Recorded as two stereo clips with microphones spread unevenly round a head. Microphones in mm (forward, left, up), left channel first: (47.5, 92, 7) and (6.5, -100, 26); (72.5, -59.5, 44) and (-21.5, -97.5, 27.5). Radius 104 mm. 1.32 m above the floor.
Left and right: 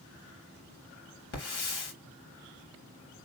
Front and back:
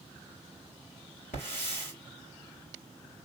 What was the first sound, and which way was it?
A hiss, 65° left.